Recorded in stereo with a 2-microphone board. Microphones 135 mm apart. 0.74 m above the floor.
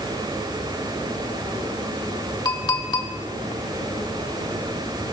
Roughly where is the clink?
Left.